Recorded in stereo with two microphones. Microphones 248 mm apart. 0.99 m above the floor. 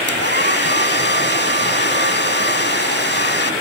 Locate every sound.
0.1 s a hair dryer: 50° left (ahead or behind)